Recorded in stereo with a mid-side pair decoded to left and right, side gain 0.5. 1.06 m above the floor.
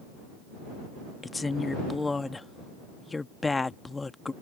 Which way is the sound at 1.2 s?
20° left.